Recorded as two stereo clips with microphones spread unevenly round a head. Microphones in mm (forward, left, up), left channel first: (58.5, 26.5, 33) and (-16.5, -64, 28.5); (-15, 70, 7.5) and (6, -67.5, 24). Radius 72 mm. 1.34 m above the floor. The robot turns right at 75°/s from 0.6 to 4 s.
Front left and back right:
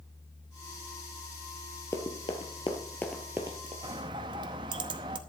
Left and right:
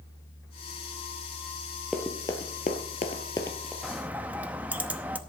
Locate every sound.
1.9 s running footsteps: straight ahead, 1.7 m; by 3.7 s 165° right, 1.8 m
3.8 s a bird: 150° right, 0.7 m; by 5.2 s 140° right, 0.7 m